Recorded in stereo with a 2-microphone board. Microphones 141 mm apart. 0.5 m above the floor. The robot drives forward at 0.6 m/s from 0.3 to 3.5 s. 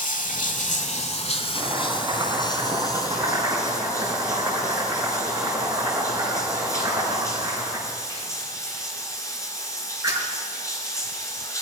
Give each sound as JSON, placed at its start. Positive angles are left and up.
{"t": 0.0, "sound": "running water", "side_deg": 80, "distance_m": 0.9}
{"t": 1.6, "sound": "chopping", "side_deg": -30, "distance_m": 3.5}